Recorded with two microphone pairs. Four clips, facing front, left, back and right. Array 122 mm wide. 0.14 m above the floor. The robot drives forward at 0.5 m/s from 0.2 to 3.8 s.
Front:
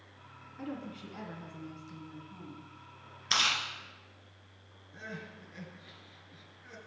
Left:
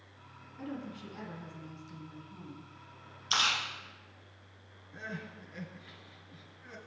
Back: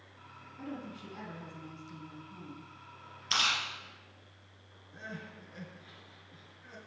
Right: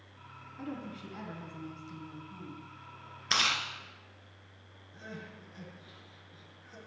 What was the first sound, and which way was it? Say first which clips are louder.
A woman speaking: even, front 2 dB; 25° right.